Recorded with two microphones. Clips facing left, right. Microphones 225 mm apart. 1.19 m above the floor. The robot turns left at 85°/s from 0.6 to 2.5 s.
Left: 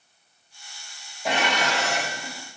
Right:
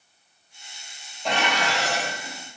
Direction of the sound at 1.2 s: 175° left.